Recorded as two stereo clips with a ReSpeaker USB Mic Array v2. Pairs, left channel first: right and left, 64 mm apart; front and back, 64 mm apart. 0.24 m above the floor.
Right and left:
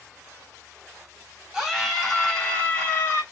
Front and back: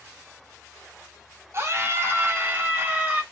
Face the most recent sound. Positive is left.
turn(degrees=-130)